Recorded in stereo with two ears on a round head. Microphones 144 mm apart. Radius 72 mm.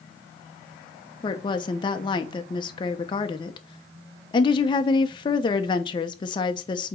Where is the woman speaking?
30° left (ahead or behind), 0.9 m.